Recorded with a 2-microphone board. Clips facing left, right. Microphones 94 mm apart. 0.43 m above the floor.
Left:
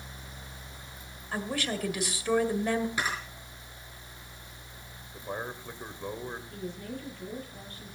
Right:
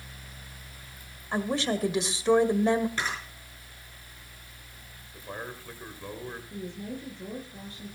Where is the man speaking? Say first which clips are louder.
Left 2 dB; 15° left (ahead or behind), 2 m.